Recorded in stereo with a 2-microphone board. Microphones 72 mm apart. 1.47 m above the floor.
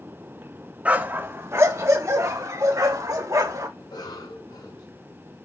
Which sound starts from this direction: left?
A cough, at 3.8 s.